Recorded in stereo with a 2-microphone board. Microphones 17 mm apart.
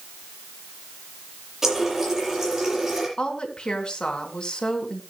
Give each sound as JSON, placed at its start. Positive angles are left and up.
{"t": 1.6, "sound": "a running tap", "side_deg": -20, "distance_m": 6.5}
{"t": 3.2, "sound": "a woman speaking", "side_deg": 60, "distance_m": 3.0}